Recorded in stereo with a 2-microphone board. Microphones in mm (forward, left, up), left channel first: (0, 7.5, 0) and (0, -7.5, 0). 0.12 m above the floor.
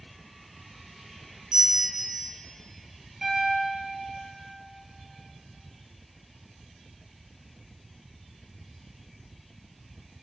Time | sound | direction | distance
1.5 | a bell | 55° right (ahead or behind) | 1.9 m
3.2 | a piano | 20° right (ahead or behind) | 2.5 m